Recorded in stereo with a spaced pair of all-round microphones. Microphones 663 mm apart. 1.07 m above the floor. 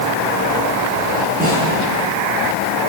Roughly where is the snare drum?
Centre.